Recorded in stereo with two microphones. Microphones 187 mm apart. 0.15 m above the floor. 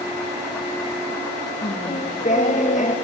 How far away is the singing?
About 2.0 m.